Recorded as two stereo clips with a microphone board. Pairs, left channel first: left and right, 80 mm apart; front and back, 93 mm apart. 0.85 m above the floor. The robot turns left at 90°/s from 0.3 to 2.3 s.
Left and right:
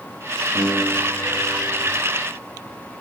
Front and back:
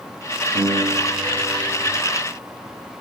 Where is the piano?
Straight behind, 8 m; by 1.9 s 60° left, 8 m.